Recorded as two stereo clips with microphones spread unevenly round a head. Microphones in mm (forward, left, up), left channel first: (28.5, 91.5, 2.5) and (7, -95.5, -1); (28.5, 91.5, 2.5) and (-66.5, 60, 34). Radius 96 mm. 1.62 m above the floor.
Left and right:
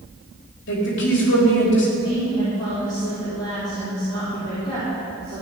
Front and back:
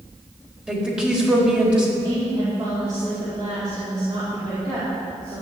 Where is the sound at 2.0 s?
150° left, 4.5 m.